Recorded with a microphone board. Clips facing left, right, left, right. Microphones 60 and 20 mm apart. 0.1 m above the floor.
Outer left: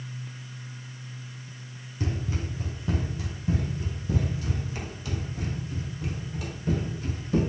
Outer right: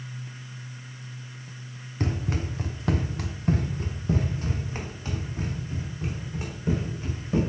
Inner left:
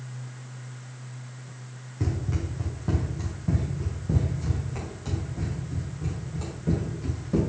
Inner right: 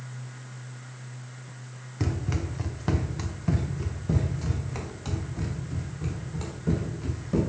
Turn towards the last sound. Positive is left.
turn(degrees=-25)  # may be behind; listen again after turning